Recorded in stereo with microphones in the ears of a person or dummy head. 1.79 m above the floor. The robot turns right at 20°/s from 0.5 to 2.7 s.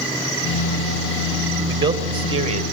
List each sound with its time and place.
1.7 s a man speaking: 10° right (ahead or behind), 1.2 m; by 2.6 s 30° right (ahead or behind), 1.2 m